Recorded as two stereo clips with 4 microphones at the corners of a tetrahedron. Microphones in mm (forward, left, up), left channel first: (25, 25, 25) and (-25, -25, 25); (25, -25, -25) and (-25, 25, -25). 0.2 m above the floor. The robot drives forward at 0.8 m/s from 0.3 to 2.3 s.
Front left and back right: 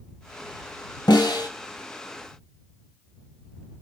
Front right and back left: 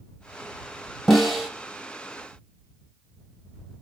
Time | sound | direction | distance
1.1 | a snare drum | 45° left | 2.5 m